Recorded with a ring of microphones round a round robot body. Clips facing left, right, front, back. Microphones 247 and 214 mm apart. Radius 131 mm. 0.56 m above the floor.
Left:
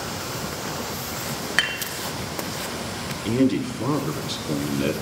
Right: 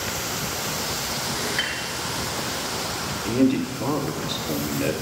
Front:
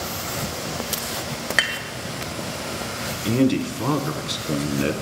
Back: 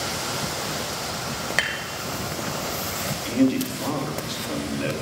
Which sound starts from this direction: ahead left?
A man speaking, at 3.2 s.